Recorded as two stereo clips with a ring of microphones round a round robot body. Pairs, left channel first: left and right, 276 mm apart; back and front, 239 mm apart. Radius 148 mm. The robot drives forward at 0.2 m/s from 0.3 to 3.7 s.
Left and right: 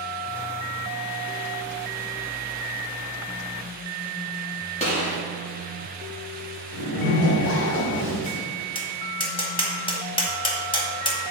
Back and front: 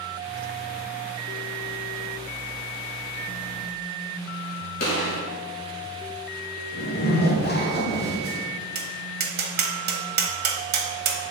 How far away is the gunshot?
About 1.8 m.